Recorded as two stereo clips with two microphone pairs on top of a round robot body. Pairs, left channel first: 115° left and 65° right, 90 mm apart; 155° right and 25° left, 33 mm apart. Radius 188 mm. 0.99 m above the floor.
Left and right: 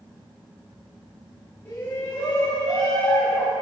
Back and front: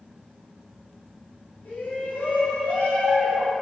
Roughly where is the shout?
Behind.